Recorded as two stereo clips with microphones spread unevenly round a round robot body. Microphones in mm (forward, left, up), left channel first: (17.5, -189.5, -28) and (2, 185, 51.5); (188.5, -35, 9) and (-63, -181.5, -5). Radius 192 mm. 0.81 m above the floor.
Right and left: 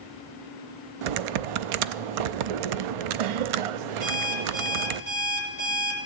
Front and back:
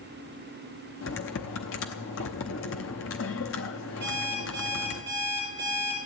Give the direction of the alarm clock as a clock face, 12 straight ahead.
7 o'clock.